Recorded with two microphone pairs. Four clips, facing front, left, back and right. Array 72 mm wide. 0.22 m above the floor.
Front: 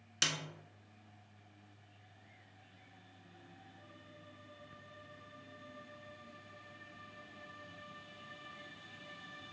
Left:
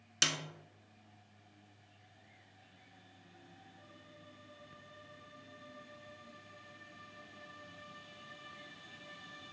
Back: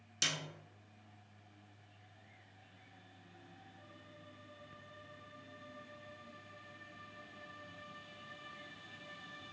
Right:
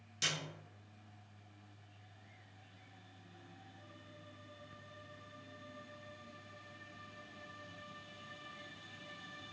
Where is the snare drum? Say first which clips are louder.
Left 4 dB, front 2 dB; 55° left, 0.8 m.